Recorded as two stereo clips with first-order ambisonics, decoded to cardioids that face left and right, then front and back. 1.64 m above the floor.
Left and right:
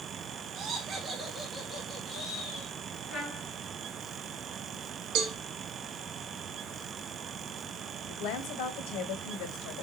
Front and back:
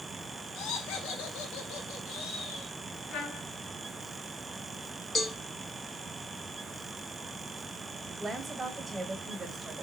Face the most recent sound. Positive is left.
turn(degrees=100)